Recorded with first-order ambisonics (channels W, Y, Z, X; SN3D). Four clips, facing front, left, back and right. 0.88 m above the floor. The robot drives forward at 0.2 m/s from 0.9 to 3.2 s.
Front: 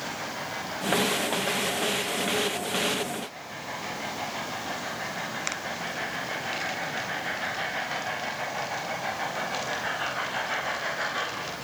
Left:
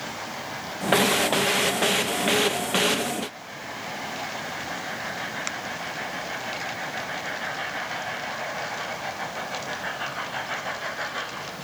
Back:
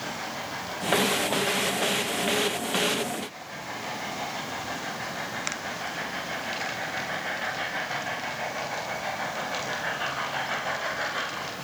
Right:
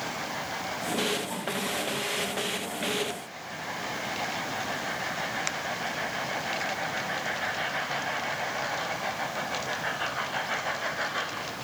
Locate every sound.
Only background noise.